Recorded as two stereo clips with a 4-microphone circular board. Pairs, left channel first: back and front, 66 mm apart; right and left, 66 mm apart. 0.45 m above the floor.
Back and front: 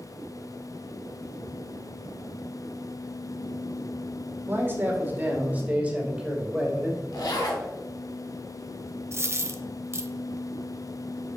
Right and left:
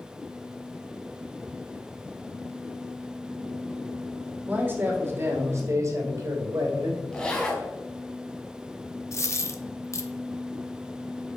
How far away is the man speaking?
About 1.9 m.